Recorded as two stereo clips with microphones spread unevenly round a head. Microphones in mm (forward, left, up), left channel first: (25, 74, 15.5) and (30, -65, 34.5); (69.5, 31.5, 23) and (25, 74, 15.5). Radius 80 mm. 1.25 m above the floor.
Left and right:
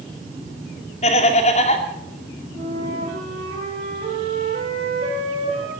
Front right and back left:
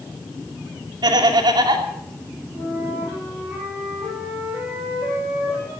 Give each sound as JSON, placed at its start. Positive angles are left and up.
{"t": 1.0, "sound": "laughter", "azimuth_deg": 145, "distance_m": 2.5}
{"t": 2.5, "sound": "a flute", "azimuth_deg": -145, "distance_m": 8.0}